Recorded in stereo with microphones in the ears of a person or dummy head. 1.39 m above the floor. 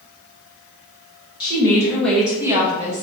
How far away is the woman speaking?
About 1.1 m.